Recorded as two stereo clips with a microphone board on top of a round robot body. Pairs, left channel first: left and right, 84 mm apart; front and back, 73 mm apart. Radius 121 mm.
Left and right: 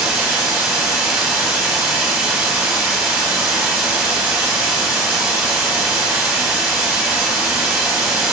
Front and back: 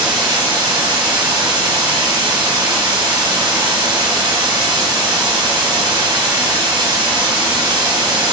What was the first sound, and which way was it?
Running water, 160° right.